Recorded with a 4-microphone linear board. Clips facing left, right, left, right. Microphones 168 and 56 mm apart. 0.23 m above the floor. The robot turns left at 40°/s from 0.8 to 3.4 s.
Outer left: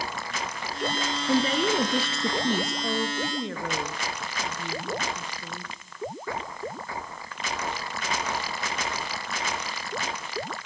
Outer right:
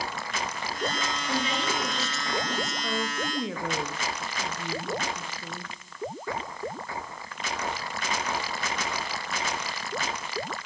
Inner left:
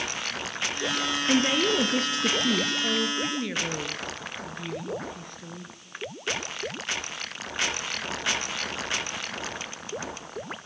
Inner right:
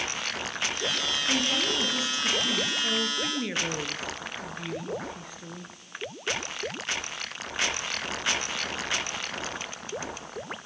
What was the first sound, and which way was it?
A woman speaking, 140° left.